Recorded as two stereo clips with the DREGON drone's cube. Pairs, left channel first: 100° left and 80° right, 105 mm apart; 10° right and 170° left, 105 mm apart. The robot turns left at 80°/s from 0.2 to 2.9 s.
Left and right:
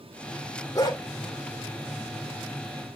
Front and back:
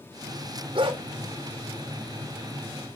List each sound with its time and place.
0.8 s a dog barking: 155° left, 2.5 m; by 1.0 s 135° left, 2.5 m